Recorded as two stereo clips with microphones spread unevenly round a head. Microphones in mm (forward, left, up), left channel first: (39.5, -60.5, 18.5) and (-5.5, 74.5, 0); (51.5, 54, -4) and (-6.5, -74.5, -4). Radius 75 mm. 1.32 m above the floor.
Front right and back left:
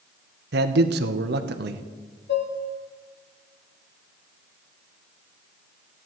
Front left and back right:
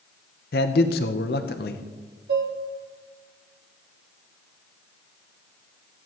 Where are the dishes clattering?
100° right, 1.8 m.